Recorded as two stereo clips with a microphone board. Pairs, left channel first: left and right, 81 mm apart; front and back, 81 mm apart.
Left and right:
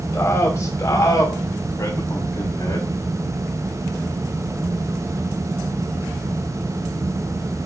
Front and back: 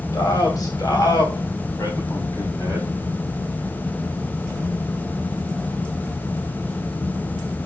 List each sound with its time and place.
0.1 s a man speaking: 35° left, 5 m; by 2.9 s 50° left, 7.5 m